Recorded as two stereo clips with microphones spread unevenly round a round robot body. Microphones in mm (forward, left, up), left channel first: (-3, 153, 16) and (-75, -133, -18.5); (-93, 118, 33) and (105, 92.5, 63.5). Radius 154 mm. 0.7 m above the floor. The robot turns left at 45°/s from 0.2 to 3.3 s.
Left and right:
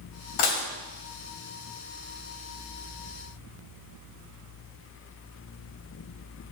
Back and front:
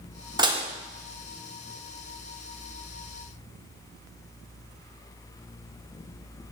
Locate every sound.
0.4 s dishes clattering: 65° left, 1.3 m; by 0.7 s 55° left, 1.3 m